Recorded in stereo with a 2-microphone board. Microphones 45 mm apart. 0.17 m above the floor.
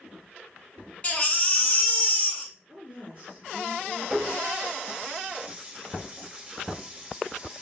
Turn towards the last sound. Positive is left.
turn(degrees=-30)  # may be behind; listen again after turning